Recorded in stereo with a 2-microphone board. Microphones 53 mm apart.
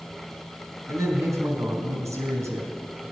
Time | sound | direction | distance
0.9 | a man speaking | 80° right | 4 m